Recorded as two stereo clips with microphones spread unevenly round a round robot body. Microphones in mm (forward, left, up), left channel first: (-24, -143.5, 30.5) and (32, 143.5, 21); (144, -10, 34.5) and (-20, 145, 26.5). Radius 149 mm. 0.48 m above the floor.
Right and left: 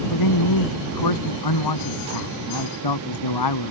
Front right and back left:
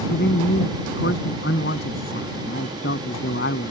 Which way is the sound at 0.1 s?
100° right.